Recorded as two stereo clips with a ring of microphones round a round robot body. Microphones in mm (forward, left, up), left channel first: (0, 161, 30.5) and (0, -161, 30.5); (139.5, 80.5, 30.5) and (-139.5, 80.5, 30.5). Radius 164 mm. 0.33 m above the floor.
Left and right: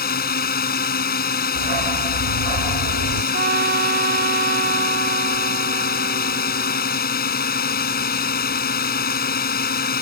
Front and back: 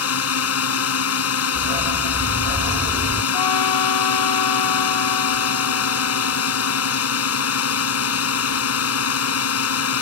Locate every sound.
0.0 s a drone: 30° left
1.6 s a dog barking: 105° right
3.3 s a trumpet: 25° right